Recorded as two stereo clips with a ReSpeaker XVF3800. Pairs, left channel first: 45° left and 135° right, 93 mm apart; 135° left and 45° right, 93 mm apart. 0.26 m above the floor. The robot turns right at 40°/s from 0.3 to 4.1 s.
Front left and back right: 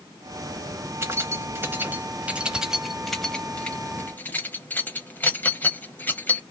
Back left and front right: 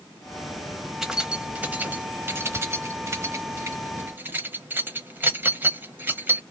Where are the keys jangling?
130° right, 0.7 m; by 6.4 s 5° right, 0.7 m.